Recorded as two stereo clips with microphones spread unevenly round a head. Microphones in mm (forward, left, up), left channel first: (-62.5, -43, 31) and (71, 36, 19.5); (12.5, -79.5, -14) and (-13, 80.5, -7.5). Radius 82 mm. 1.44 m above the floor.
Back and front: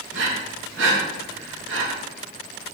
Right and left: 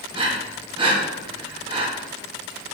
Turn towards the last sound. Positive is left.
turn(degrees=35)